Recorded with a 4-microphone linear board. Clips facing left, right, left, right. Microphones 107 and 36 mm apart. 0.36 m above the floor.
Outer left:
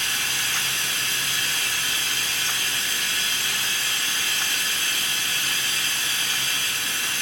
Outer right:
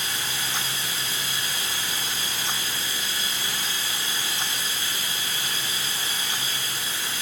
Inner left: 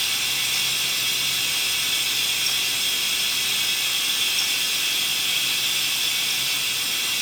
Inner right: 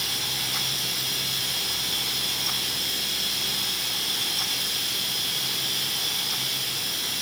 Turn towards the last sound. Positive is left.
turn(degrees=70)  # may be behind; listen again after turning